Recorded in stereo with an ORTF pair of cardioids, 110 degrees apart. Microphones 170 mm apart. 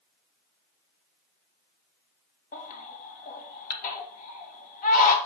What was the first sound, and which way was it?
A baby crying, 55° left.